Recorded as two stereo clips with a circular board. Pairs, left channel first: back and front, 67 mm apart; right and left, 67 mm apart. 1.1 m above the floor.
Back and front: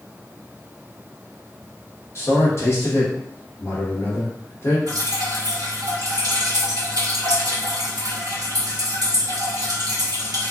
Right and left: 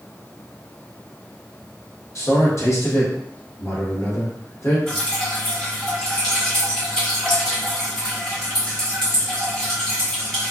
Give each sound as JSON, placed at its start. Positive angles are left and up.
{"t": 2.1, "sound": "a man speaking", "azimuth_deg": -130, "distance_m": 1.1}
{"t": 4.9, "sound": "dripping", "azimuth_deg": -10, "distance_m": 1.0}